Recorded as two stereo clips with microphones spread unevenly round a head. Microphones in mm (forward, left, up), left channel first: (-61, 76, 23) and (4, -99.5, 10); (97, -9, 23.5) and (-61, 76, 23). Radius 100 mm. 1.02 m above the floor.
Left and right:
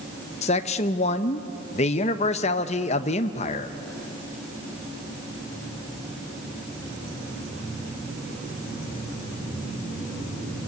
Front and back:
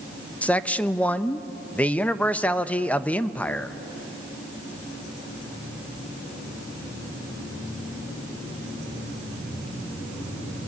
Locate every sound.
0.4 s a man speaking: 55° left, 0.9 m